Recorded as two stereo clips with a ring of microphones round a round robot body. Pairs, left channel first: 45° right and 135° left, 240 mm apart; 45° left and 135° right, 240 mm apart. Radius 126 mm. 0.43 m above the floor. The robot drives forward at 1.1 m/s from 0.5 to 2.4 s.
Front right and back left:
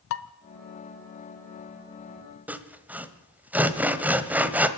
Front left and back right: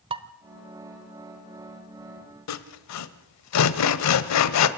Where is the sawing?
50° left, 1.2 m.